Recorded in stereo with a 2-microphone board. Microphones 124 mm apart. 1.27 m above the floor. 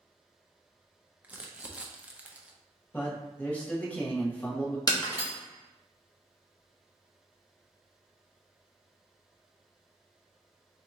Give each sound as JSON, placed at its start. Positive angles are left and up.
{"t": 1.2, "sound": "crumpling", "side_deg": -15, "distance_m": 0.5}
{"t": 2.9, "sound": "a man speaking", "side_deg": 10, "distance_m": 1.2}
{"t": 4.9, "sound": "breaking glass", "side_deg": 30, "distance_m": 1.3}